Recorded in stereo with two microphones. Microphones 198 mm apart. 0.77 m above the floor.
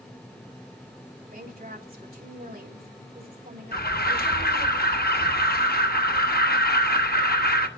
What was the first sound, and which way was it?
A woman speaking, 55° right (ahead or behind).